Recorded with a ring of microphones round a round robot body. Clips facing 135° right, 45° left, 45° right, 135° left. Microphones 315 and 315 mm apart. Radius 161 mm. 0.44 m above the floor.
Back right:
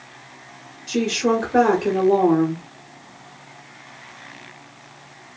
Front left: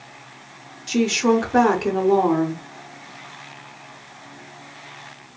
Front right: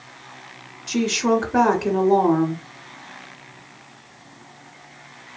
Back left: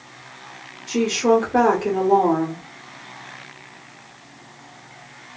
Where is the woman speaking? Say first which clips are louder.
Front left 2 dB, back left 2 dB; 10° right, 0.8 m.